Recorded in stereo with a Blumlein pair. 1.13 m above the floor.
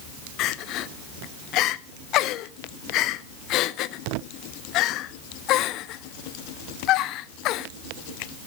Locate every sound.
0.4 s crying: 35° left, 0.8 m